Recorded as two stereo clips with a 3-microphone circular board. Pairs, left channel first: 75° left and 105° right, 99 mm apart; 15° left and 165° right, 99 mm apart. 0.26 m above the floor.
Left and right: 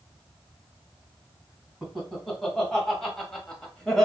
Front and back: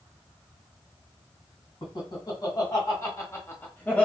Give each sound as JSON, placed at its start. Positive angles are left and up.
{"t": 1.8, "sound": "laughter", "azimuth_deg": -10, "distance_m": 1.7}